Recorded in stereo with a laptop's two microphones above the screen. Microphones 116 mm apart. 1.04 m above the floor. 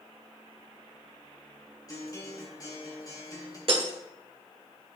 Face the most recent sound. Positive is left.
turn(degrees=-55)  # may be behind; listen again after turning